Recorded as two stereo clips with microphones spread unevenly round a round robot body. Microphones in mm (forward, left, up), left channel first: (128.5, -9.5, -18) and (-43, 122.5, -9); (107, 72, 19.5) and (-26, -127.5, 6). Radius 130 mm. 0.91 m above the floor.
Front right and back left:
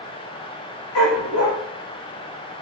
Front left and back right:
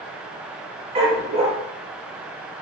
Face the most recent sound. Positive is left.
turn(degrees=-55)